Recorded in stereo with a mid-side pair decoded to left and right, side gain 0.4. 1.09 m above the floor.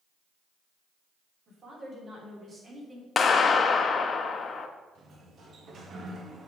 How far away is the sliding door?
About 1.3 m.